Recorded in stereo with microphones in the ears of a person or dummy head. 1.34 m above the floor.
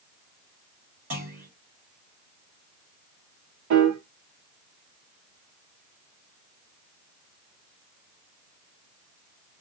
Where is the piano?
75° right (ahead or behind), 0.6 m.